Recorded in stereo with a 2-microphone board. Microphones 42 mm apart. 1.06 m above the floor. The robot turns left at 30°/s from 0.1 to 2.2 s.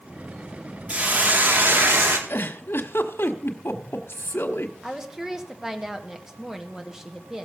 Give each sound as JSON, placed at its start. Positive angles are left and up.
{"t": 0.9, "sound": "a hiss", "azimuth_deg": -30, "distance_m": 2.0}
{"t": 2.3, "sound": "a giggle", "side_deg": 70, "distance_m": 1.3}
{"t": 4.8, "sound": "a woman speaking", "side_deg": -10, "distance_m": 1.5}